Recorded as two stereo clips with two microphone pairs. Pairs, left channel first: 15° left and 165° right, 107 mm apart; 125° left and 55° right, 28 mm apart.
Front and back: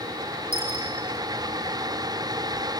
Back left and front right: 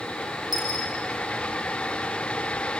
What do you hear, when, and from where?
0.5 s a dropped coin: 30° left, 5.5 m